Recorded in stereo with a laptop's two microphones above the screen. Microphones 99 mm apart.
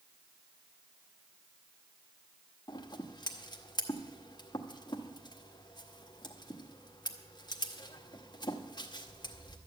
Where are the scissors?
45° left (ahead or behind), 1.0 m.